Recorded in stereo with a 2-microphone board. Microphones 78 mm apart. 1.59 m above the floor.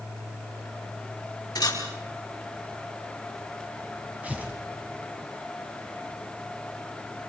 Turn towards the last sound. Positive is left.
turn(degrees=-20)  # may be behind; listen again after turning